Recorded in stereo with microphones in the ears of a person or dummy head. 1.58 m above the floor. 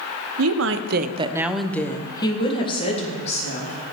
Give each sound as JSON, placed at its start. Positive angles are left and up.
{"t": 0.4, "sound": "a woman speaking", "side_deg": -85, "distance_m": 0.9}